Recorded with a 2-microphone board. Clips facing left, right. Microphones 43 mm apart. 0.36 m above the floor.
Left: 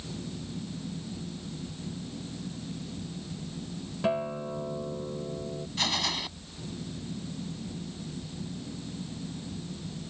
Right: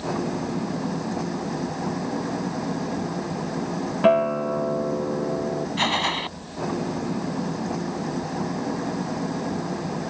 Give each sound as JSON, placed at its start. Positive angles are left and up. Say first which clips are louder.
{"t": 0.0, "sound": "an engine running", "louder": "right 13 dB", "side_deg": -90}
{"t": 4.0, "sound": "a guitar", "louder": "right 11 dB", "side_deg": -45}
{"t": 5.8, "sound": "a gunshot", "louder": "right 6 dB", "side_deg": -35}